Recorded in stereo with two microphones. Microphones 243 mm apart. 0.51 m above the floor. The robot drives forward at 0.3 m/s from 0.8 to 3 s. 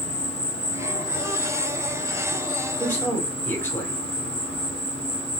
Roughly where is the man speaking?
Centre.